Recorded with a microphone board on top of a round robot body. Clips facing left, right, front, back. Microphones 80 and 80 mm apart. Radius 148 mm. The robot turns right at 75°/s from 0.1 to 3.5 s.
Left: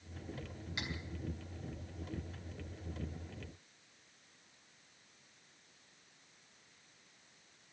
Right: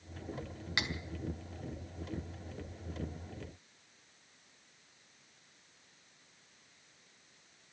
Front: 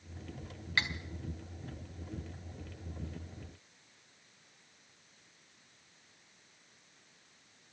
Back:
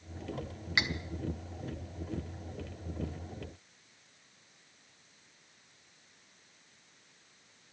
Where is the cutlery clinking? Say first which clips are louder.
Right 7 dB, back 1 dB; 105° right, 1.3 m; by 0.9 s 95° right, 1.3 m.